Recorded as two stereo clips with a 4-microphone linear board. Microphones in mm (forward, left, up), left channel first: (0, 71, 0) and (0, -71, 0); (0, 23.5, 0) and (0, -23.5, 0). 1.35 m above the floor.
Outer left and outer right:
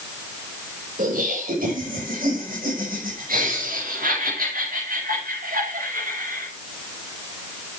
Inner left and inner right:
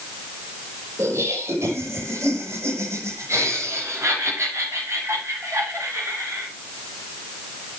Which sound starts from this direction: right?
Laughter, at 1.0 s.